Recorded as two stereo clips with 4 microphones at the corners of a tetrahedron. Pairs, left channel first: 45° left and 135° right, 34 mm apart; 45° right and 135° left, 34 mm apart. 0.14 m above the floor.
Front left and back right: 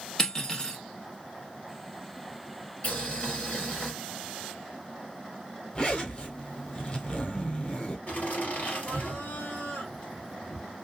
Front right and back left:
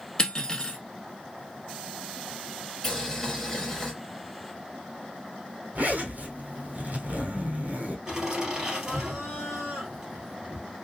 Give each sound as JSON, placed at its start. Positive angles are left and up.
{"t": 0.2, "sound": "cutlery clinking", "azimuth_deg": 0, "distance_m": 1.0}
{"t": 2.8, "sound": "boiling", "azimuth_deg": 30, "distance_m": 2.0}
{"t": 5.8, "sound": "a zipper", "azimuth_deg": 105, "distance_m": 1.2}
{"t": 8.1, "sound": "laughter", "azimuth_deg": 75, "distance_m": 3.0}